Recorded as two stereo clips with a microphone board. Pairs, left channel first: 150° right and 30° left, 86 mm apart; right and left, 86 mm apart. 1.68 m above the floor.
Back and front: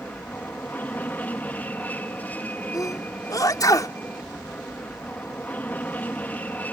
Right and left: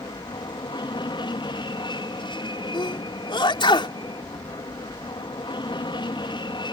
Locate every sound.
0.0 s an aircraft: 80° right
2.7 s a sneeze: 105° right